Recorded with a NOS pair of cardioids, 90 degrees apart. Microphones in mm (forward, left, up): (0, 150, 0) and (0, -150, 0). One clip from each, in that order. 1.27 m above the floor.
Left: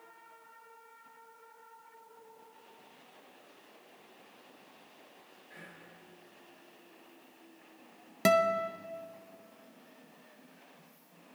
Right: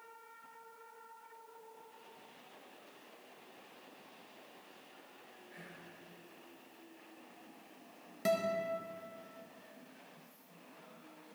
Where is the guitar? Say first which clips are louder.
Left 7 dB; 55° left, 0.7 m.